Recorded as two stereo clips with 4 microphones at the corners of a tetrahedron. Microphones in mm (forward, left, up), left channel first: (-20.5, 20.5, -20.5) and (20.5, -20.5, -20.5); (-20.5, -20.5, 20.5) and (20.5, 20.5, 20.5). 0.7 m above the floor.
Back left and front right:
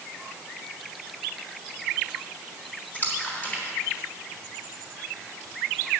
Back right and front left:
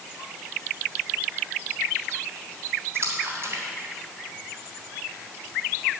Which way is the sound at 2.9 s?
75° left.